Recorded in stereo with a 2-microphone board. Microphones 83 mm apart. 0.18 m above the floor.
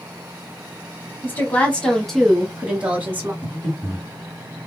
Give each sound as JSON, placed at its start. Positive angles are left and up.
{"t": 1.2, "sound": "a woman speaking", "side_deg": 20, "distance_m": 1.2}
{"t": 3.4, "sound": "breathing", "side_deg": 20, "distance_m": 1.7}